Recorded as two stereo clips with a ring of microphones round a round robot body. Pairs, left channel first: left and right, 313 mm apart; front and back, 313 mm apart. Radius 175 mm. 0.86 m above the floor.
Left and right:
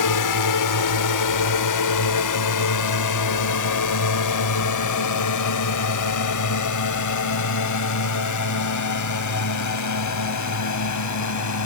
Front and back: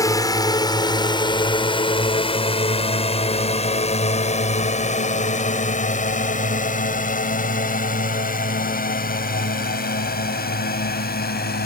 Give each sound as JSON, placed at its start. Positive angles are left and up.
{"t": 0.0, "sound": "a drone", "azimuth_deg": 80}